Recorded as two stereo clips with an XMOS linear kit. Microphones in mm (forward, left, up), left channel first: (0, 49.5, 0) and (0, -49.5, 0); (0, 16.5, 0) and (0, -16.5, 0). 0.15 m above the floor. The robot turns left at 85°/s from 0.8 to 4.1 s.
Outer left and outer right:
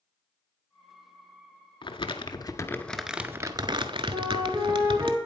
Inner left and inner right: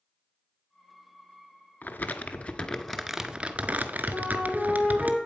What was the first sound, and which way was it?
Crumpling, 100° left.